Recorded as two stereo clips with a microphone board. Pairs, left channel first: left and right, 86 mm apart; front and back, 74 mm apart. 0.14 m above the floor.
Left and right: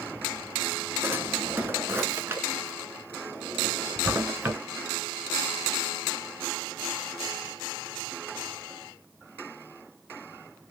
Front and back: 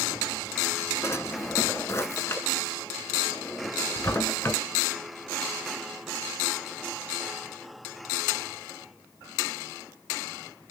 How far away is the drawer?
About 0.6 m.